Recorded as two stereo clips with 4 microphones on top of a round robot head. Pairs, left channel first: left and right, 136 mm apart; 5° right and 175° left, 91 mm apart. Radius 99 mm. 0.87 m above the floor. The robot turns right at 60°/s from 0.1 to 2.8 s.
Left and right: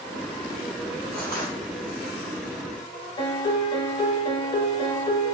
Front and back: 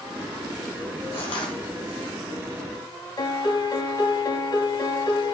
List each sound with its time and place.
1.1 s crushing: straight ahead, 1.3 m; by 1.6 s 25° left, 1.3 m
3.2 s a piano: 40° left, 0.8 m